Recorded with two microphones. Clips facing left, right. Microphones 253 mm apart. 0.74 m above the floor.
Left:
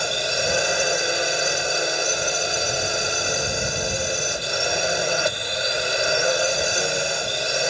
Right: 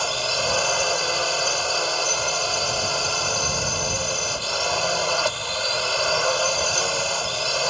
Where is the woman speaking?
No woman speaking in this recording.